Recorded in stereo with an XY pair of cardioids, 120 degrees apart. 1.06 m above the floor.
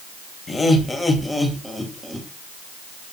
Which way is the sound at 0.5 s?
25° left.